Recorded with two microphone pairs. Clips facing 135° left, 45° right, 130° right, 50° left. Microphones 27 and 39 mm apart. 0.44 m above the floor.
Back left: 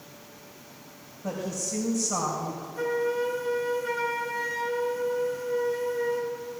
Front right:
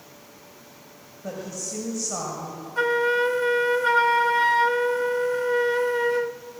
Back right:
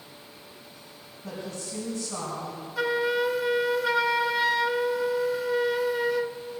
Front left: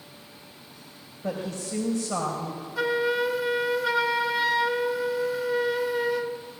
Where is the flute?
35° right, 0.6 m.